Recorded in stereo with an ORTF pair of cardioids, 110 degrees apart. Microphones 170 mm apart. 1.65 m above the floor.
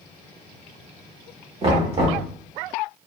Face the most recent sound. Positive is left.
turn(degrees=-35)